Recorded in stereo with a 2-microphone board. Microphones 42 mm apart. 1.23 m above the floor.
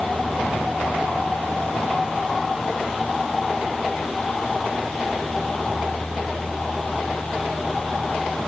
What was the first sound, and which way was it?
Only background noise.